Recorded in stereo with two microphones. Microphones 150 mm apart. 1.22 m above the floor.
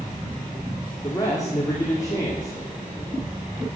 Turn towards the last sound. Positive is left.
turn(degrees=20)  # may be behind; listen again after turning